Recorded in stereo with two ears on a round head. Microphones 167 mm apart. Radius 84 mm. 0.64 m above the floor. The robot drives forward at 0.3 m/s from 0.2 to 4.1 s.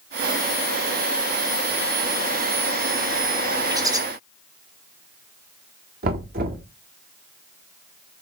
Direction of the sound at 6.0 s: 55° right (ahead or behind).